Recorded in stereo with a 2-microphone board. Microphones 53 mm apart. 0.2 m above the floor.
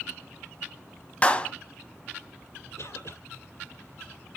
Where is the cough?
65° left (ahead or behind), 4.5 m.